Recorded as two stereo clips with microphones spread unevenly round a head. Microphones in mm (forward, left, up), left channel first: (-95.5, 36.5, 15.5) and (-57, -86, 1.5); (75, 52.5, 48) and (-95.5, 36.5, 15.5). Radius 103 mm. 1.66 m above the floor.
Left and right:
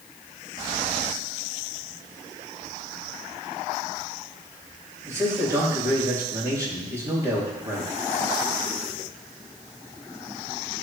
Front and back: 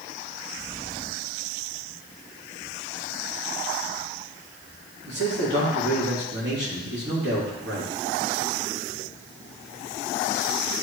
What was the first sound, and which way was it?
A man speaking, 140° right.